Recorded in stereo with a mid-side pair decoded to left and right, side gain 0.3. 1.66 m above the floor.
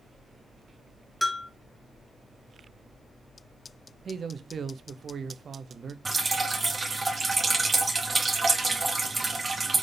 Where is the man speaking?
60° right, 0.6 m.